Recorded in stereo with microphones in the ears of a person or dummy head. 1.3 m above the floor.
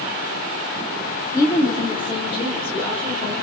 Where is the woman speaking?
15° left (ahead or behind), 2 m; by 3.3 s 35° left (ahead or behind), 4.5 m.